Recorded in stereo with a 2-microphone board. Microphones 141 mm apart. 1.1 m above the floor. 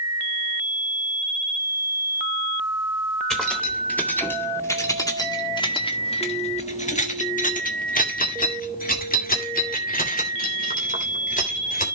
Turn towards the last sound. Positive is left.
turn(degrees=70)  # may be behind; listen again after turning